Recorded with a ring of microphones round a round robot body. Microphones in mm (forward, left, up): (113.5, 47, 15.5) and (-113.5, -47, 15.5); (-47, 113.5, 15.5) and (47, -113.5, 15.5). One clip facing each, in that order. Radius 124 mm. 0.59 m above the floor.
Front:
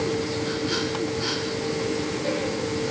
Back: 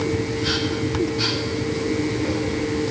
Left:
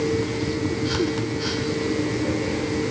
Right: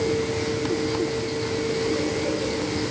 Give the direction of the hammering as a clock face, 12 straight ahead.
I don't hear hammering.